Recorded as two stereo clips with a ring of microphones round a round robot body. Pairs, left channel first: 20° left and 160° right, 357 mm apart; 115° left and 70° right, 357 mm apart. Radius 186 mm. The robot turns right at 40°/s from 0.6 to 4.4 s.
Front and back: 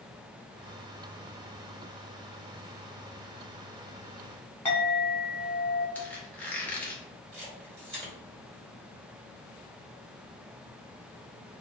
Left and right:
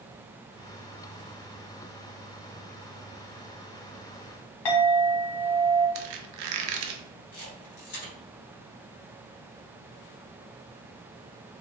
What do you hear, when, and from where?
4.7 s a clink: 105° left, 1.1 m
6.0 s a squeak: 65° right, 0.5 m
7.3 s a camera shutter: 150° left, 2.0 m